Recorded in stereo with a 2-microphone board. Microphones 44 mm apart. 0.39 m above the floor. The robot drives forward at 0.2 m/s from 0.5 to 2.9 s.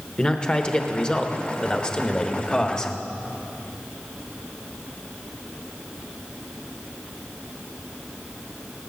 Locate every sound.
0.2 s a man speaking: 20° left (ahead or behind), 1.0 m